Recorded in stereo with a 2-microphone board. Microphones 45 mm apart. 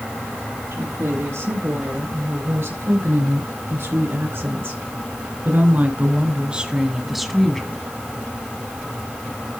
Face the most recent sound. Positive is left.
turn(degrees=10)  # may be behind; listen again after turning